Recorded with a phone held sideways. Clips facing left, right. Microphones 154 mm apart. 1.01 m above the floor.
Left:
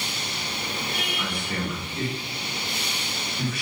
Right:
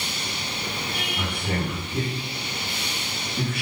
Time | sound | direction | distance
1.2 | a man speaking | 80° right | 8.5 m